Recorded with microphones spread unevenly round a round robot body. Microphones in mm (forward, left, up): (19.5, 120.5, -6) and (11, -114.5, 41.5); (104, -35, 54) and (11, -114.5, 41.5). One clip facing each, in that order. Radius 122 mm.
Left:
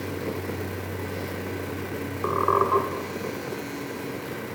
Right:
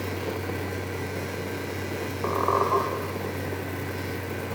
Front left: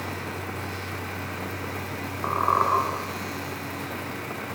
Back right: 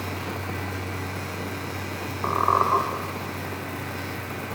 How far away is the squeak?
About 1.3 m.